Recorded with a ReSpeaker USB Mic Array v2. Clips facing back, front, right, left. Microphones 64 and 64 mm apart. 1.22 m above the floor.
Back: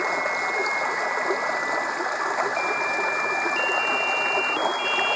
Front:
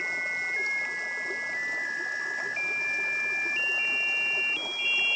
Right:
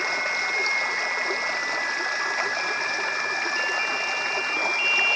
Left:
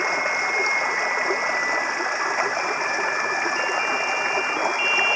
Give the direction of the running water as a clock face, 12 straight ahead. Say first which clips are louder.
Back 7 dB, left 3 dB; 7 o'clock.